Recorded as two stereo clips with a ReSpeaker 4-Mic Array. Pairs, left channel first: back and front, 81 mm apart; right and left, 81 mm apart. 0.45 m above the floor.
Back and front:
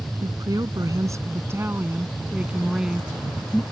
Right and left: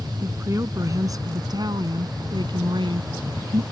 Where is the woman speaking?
35° left; by 3.6 s 95° left.